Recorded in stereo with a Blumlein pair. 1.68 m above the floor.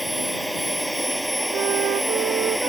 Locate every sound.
0.0 s a machine running: straight ahead
1.5 s a flute: 35° right